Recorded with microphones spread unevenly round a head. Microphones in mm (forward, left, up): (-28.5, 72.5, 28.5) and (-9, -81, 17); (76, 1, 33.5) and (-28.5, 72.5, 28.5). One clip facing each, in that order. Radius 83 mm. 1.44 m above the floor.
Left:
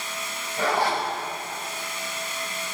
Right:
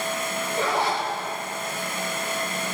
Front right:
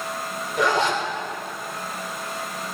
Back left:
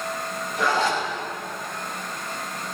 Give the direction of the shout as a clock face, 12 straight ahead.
No shout in this recording.